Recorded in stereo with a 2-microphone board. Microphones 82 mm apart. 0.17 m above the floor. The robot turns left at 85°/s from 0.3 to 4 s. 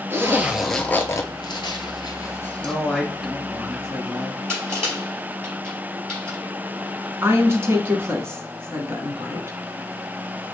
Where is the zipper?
30° right (ahead or behind), 0.9 m; by 2.7 s 5° left (ahead or behind), 0.9 m.